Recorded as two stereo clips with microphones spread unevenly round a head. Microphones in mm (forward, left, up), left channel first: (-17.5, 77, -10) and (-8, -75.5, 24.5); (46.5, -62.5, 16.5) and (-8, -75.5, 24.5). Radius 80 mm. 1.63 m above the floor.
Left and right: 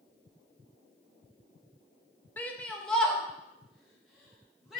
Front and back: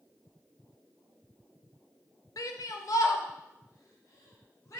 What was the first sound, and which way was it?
A shout, 10° left.